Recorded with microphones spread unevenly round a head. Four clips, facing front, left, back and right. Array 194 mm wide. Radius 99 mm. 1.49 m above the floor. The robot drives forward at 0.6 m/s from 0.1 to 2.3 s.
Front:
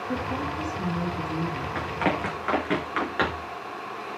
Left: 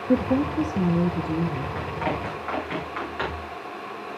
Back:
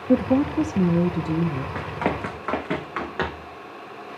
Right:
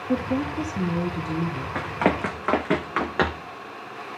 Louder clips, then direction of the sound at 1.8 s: Right 8 dB, front 2 dB; 100° right.